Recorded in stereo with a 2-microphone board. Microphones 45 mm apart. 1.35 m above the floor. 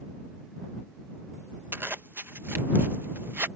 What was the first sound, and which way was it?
A zipper, 55° right (ahead or behind).